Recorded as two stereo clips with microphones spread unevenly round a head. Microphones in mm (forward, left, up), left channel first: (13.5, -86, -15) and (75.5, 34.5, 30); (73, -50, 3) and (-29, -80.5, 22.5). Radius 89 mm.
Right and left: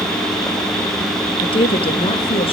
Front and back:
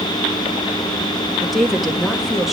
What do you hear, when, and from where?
1.4 s a woman speaking: 70° right, 2.0 m